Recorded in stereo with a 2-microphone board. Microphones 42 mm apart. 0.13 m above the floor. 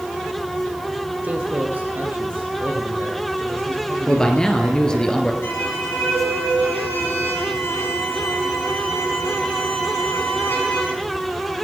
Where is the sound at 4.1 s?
20° left (ahead or behind), 2.5 m.